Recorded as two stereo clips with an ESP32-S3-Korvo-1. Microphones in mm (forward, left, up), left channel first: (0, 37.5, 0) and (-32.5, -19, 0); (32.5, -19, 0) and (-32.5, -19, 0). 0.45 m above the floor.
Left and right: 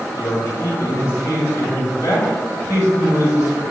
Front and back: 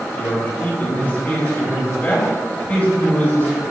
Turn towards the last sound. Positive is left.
turn(degrees=55)